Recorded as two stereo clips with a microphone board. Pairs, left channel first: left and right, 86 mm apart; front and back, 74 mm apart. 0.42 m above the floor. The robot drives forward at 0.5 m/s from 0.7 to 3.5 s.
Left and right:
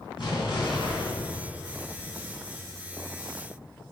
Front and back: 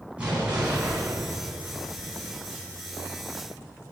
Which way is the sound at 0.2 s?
105° left.